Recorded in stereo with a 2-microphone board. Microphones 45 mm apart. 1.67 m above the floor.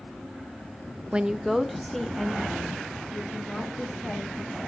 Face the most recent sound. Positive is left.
turn(degrees=15)  # may be behind; listen again after turning